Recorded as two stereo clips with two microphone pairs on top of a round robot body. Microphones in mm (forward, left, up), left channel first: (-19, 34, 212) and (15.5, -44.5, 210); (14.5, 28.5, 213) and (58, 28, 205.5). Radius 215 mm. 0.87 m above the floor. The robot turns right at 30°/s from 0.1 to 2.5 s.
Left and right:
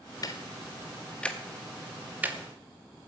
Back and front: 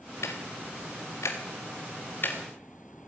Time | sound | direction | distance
0.2 | ticking | 160° left | 0.8 m